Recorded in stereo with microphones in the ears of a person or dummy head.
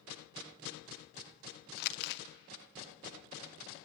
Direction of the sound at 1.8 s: 65° left (ahead or behind).